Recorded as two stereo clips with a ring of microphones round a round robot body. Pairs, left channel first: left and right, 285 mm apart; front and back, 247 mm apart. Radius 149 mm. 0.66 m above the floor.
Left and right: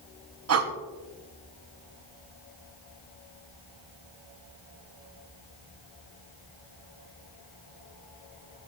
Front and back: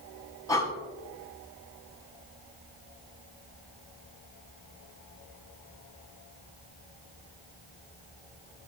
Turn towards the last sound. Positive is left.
turn(degrees=-75)